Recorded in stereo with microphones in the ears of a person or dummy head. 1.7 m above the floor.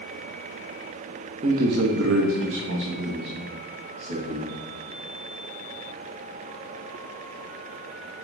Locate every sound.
1.4 s a man speaking: 35° right (ahead or behind), 0.7 m; by 4.5 s 60° right (ahead or behind), 2.5 m